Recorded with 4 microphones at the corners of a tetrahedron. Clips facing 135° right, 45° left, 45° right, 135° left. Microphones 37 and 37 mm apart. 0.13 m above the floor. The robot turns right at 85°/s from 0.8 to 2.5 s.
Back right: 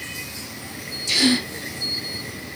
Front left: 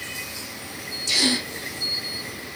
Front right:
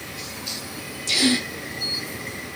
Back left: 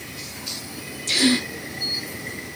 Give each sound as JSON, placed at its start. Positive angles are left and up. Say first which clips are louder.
{"t": 1.1, "sound": "a gasp", "louder": "back right 3 dB, back left 1 dB", "azimuth_deg": 160, "distance_m": 1.3}